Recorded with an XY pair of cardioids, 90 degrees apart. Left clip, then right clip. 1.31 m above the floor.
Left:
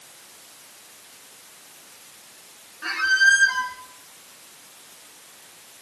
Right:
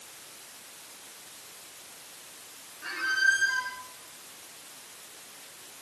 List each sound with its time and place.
2.8 s a squeak: 65° left, 5.5 m